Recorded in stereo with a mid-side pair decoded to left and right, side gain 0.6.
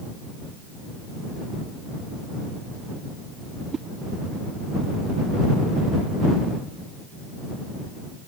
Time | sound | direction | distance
3.7 | a whoosh | 35° right | ?